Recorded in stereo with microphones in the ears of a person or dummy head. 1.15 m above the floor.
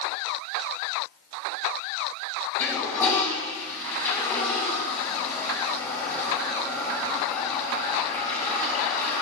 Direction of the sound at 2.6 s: 10° left (ahead or behind).